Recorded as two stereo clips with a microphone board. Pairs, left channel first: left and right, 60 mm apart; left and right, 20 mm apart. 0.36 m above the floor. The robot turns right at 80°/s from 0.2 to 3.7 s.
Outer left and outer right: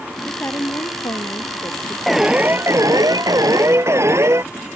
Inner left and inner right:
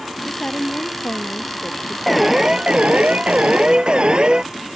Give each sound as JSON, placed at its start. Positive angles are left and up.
{"t": 0.3, "sound": "a woman speaking", "azimuth_deg": 20}
{"t": 2.1, "sound": "an alarm", "azimuth_deg": 180}